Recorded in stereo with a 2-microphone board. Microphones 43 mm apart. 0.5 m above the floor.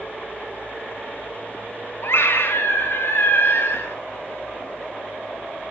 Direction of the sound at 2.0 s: 60° left (ahead or behind).